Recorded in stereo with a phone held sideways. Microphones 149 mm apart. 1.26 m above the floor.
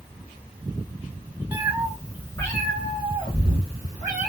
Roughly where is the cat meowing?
Centre.